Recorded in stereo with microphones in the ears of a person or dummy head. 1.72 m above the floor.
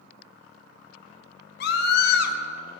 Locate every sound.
1.6 s a scream: 65° left (ahead or behind), 1.7 m